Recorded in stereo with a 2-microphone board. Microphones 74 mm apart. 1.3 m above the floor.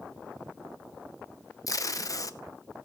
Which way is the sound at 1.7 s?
50° left (ahead or behind).